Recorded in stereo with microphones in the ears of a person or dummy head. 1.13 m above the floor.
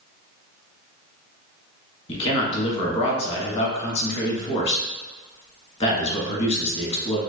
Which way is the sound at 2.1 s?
35° left (ahead or behind).